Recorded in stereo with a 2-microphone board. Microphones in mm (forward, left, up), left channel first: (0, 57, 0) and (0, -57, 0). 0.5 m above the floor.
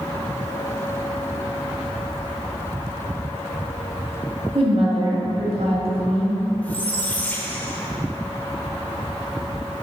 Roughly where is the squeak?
Centre.